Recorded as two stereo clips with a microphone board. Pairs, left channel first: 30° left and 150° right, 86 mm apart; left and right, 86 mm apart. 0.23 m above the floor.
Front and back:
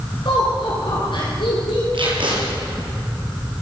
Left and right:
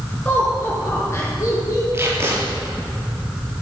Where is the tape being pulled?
150° right, 4 m.